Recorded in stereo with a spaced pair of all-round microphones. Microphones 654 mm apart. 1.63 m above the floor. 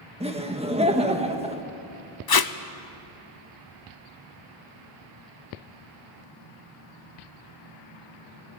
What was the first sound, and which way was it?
Laughter, 10° right (ahead or behind).